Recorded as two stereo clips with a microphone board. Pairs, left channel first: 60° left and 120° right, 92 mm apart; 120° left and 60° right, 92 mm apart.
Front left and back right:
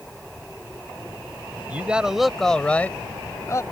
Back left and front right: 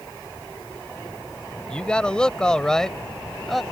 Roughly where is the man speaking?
Behind.